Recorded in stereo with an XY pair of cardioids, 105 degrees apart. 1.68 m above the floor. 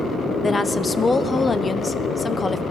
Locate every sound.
0.4 s a woman speaking: 25° left, 1.1 m